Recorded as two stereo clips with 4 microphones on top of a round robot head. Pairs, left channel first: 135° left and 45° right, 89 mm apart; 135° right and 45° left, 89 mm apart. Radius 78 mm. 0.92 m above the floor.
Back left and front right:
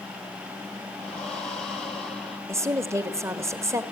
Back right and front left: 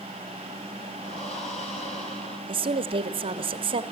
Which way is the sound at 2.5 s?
15° left.